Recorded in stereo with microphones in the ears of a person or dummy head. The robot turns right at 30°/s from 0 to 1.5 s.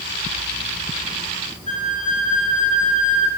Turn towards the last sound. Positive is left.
turn(degrees=-35)  # may be behind; listen again after turning